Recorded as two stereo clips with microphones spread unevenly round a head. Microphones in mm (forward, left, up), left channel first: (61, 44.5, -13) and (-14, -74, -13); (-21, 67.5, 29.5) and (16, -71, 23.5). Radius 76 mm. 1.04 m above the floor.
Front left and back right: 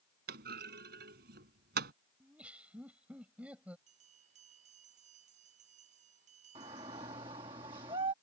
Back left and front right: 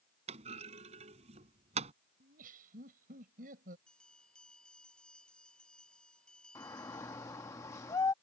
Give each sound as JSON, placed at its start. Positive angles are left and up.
{"t": 0.3, "sound": "a clunk", "azimuth_deg": -125}
{"t": 2.2, "sound": "laughter", "azimuth_deg": -40}
{"t": 3.9, "sound": "a bell", "azimuth_deg": -170}
{"t": 6.5, "sound": "a shout", "azimuth_deg": 175}